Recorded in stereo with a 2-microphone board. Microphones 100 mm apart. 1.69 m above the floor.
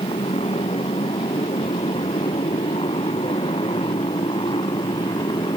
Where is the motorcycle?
80° left; by 5.6 s 55° left (ahead or behind).